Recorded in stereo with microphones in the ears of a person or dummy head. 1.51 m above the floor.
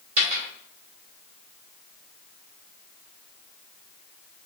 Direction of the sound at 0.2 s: 40° right (ahead or behind).